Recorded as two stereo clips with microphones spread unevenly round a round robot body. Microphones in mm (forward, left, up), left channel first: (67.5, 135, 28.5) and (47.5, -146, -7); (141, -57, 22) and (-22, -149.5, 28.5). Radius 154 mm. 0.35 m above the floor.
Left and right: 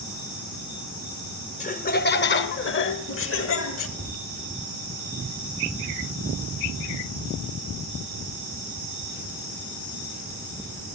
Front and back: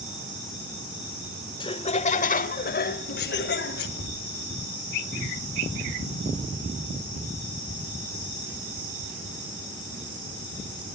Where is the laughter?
40° left, 0.8 m; by 3.9 s 45° left, 1.8 m.